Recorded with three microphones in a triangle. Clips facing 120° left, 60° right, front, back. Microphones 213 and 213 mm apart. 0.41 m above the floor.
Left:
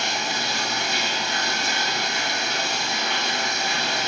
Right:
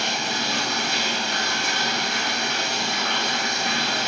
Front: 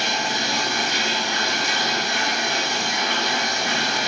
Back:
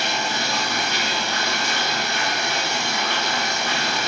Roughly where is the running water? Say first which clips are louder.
Right 1 dB, even; right.